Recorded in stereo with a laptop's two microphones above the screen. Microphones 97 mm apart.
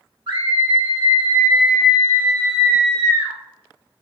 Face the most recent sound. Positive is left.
turn(degrees=-45)  # may be behind; listen again after turning